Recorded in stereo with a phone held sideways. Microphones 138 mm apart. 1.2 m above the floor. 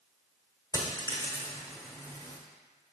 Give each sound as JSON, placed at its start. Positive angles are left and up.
{"t": 0.7, "sound": "a dropped coin", "side_deg": 25, "distance_m": 1.2}